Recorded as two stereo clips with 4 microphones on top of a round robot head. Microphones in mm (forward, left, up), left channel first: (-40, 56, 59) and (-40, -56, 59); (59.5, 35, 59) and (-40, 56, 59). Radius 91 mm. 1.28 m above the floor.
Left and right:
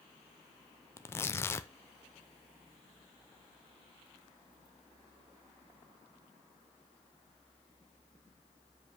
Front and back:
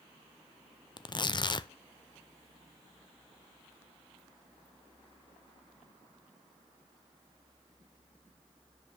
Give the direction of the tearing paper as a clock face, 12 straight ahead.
11 o'clock.